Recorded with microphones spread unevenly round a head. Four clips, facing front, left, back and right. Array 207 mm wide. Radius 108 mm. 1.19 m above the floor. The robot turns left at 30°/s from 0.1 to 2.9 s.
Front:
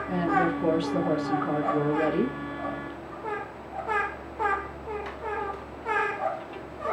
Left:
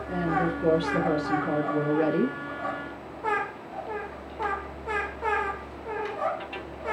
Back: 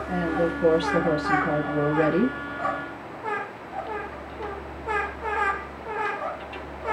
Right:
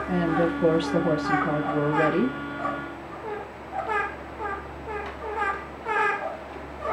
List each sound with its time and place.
0.1 s a woman speaking: 90° right, 1.5 m; by 2.4 s 160° right, 1.5 m